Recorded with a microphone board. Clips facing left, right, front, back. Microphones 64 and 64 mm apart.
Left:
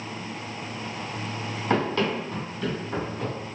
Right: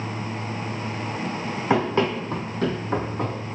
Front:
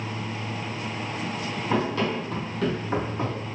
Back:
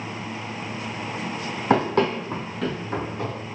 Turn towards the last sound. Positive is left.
turn(degrees=-60)